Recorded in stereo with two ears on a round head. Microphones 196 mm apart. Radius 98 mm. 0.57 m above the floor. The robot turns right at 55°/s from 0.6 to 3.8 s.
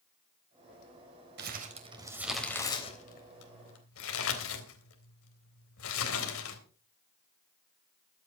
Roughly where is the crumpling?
Right.